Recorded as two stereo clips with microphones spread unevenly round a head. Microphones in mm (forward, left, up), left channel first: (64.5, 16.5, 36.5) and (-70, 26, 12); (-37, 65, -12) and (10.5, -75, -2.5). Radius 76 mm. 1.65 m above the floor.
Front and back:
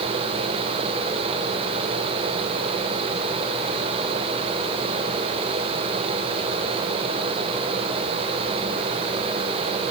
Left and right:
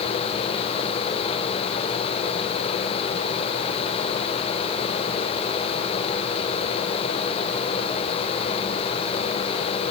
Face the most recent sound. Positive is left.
No sound to turn to.